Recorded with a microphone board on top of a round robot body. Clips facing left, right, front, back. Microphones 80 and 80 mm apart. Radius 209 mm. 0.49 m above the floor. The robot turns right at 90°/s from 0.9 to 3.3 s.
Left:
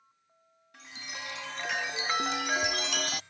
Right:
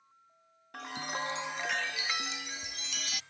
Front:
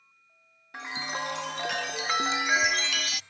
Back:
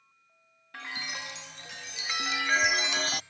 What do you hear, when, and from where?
0.7 s a chime: 70° right; by 3.2 s 140° left